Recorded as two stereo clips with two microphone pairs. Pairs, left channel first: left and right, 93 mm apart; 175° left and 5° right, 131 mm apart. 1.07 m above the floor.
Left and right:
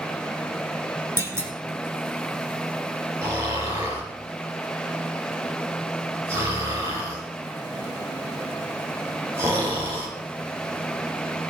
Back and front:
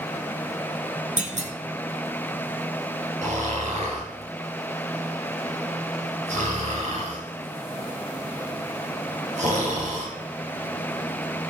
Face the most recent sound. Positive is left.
turn(degrees=-30)